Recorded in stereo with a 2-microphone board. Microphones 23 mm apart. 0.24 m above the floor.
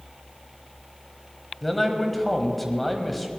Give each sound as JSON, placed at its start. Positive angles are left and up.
{"t": 1.6, "sound": "a man speaking", "side_deg": 5, "distance_m": 1.3}